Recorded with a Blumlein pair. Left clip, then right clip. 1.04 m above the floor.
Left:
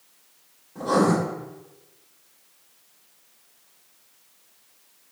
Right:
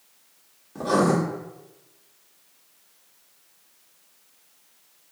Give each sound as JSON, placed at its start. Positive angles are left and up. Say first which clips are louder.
{"t": 0.8, "sound": "writing", "louder": "even", "azimuth_deg": -25, "distance_m": 1.2}